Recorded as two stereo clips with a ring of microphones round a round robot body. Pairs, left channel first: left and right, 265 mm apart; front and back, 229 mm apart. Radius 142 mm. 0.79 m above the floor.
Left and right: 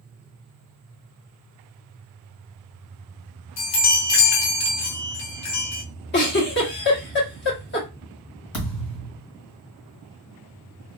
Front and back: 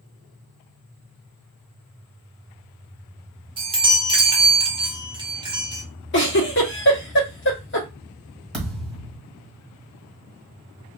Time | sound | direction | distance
3.6 | a chime | 110° left | 1.1 m
6.1 | a giggle | 40° left | 1.2 m
8.5 | a thud | 85° left | 1.7 m